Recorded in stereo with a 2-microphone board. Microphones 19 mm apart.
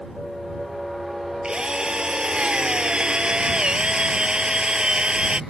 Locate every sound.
1.4 s a drill: 55° right (ahead or behind)